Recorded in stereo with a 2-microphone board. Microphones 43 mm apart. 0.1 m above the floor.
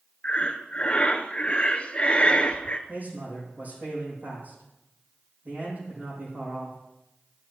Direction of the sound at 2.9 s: 45° right (ahead or behind).